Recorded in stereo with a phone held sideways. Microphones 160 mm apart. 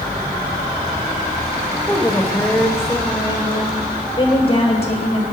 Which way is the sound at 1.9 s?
5° left (ahead or behind).